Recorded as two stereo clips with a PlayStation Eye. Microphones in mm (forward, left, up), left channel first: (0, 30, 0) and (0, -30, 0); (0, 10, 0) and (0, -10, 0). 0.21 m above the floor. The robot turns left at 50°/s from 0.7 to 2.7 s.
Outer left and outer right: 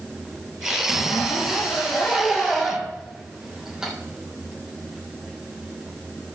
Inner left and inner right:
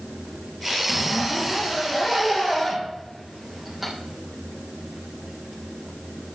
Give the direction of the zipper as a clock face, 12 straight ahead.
9 o'clock.